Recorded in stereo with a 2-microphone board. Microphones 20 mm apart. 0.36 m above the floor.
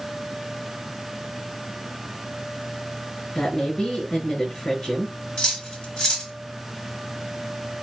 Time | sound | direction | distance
3.4 | a woman speaking | 35° left (ahead or behind) | 3.5 m
5.4 | cutlery clinking | 50° left (ahead or behind) | 1.8 m